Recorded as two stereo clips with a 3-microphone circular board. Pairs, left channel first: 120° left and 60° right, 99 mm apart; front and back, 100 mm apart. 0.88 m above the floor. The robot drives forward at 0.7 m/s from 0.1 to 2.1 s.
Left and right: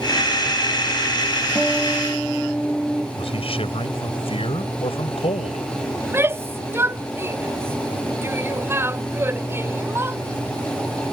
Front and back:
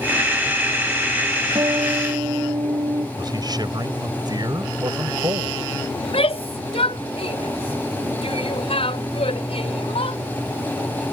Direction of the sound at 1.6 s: 150° right.